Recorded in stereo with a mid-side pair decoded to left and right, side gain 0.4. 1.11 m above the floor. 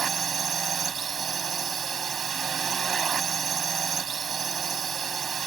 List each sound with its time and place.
0.0 s a drone: 50° right